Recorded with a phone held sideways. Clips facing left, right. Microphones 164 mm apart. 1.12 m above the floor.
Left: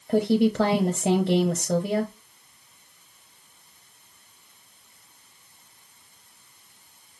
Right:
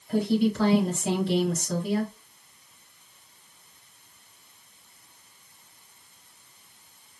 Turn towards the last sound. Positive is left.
turn(degrees=55)  # may be behind; listen again after turning